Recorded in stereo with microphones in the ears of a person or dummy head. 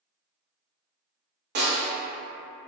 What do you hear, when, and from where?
1.6 s a snare drum: 50° right (ahead or behind), 0.9 m